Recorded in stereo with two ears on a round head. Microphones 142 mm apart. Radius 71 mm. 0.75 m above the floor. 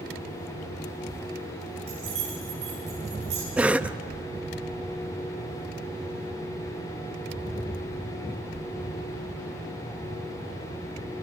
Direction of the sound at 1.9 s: 40° right (ahead or behind).